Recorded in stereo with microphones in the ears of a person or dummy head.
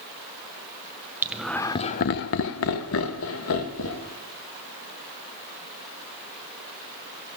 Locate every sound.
1.2 s laughter: 10° right (ahead or behind), 0.7 m; by 4.1 s 70° left (ahead or behind), 1.8 m